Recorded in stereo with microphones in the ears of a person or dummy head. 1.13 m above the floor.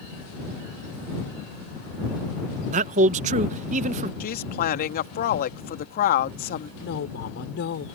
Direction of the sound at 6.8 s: 60° left (ahead or behind).